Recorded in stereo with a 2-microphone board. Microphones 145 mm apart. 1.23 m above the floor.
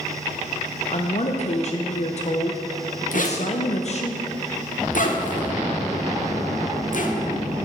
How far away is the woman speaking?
About 0.6 m.